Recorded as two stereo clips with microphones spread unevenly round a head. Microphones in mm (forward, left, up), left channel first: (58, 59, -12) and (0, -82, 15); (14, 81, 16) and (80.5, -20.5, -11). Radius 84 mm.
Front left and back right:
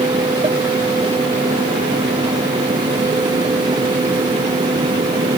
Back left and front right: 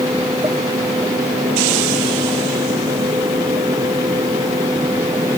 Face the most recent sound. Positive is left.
No sound to turn to.